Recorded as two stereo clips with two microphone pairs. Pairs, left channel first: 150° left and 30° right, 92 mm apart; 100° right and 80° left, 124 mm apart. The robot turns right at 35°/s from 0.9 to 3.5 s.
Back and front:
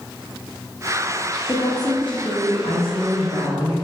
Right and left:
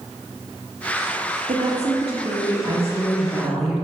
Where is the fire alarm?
No fire alarm in this recording.